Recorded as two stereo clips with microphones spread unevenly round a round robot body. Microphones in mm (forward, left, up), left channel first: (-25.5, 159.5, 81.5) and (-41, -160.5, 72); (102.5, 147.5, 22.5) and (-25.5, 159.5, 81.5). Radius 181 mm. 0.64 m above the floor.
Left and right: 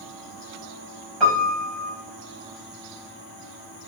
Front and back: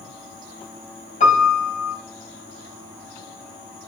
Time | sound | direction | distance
1.2 | a piano | straight ahead | 3 m